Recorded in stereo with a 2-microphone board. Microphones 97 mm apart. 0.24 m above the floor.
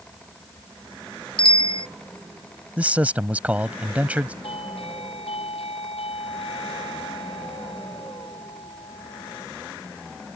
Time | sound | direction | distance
1.4 | a bicycle bell | 65° left (ahead or behind) | ?
2.8 | a man speaking | 15° right (ahead or behind) | ?
4.4 | a doorbell | 80° left | ?